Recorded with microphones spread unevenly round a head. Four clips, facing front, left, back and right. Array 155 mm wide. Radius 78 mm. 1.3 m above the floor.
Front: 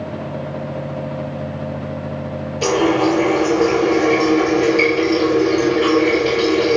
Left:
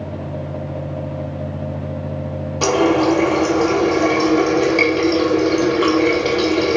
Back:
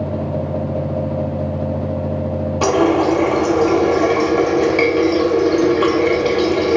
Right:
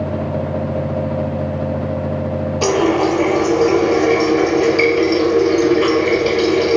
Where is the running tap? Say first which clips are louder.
Left 1 dB, back 1 dB; 165° left, 0.9 m.